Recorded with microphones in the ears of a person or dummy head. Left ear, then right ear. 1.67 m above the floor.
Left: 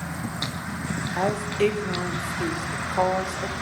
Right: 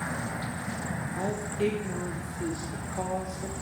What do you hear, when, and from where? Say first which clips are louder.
1.2 s a woman speaking: left 8 dB; 40° left (ahead or behind), 1.0 m